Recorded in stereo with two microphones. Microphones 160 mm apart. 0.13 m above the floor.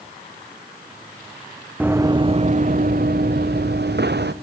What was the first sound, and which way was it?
Running footsteps, 10° right (ahead or behind).